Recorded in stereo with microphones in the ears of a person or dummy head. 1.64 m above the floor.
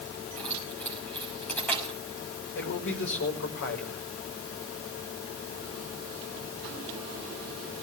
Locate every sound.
0.4 s keys jangling: 10° left (ahead or behind), 6.5 m
2.5 s a man speaking: 65° left (ahead or behind), 6 m